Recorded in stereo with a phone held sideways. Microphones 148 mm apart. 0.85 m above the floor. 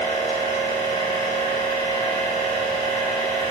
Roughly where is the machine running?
Left.